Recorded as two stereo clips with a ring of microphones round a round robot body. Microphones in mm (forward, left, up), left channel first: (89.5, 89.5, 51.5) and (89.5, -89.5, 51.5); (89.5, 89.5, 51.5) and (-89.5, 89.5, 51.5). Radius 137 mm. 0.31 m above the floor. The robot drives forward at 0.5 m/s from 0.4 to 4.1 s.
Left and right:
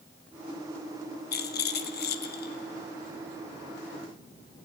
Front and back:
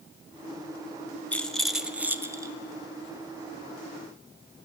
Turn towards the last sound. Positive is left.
turn(degrees=135)